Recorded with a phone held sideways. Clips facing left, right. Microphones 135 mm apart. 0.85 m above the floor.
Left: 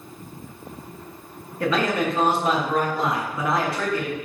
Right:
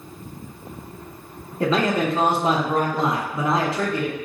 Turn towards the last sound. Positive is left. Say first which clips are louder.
# right 2 dB
turn(degrees=-25)  # may be behind; listen again after turning